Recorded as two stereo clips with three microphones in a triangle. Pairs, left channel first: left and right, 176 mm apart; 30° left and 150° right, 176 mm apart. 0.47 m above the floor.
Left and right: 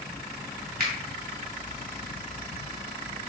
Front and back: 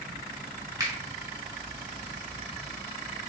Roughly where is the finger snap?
Right.